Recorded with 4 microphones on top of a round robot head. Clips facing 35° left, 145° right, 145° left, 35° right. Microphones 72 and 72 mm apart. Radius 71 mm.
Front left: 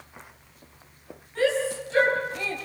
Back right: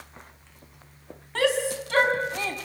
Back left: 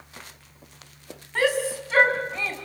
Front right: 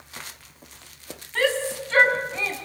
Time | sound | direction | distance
1.4 | a shout | 140° right | 5 m